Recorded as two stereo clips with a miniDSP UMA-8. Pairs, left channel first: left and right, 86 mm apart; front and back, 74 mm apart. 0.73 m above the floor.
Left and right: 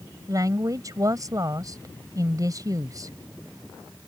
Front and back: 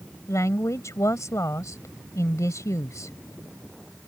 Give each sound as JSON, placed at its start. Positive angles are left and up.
{"t": 0.3, "sound": "a woman speaking", "azimuth_deg": -45}